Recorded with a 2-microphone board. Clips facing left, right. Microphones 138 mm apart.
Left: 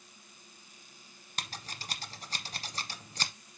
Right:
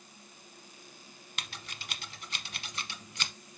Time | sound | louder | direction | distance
1.4 | scissors | left 3 dB | 40° left (ahead or behind) | 0.8 m